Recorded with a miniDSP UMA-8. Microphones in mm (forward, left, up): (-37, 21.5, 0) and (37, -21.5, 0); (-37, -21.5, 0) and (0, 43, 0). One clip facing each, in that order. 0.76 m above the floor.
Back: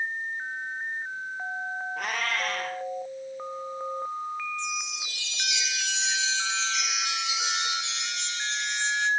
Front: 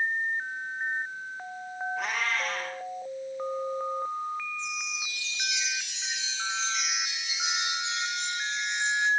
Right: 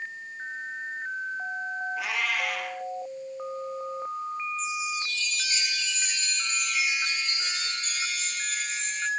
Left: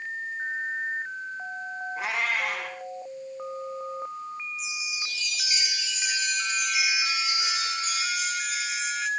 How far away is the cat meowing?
About 3.5 m.